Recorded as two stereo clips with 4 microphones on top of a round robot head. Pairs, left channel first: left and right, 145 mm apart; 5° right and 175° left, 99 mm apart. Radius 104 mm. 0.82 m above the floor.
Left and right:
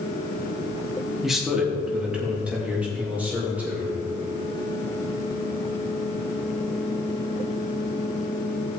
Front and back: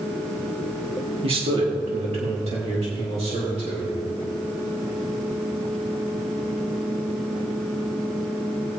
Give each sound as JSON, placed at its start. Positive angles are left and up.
{"t": 1.2, "sound": "a man speaking", "azimuth_deg": -175, "distance_m": 1.8}